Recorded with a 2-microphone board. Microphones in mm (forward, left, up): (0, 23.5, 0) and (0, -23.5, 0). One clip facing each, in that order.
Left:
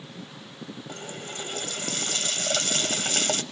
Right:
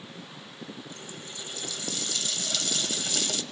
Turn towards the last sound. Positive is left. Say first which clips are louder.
# left 5 dB
turn(degrees=60)  # may be behind; listen again after turning